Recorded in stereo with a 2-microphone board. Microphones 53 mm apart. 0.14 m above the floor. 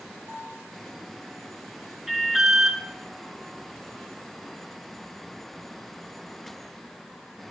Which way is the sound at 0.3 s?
60° right (ahead or behind).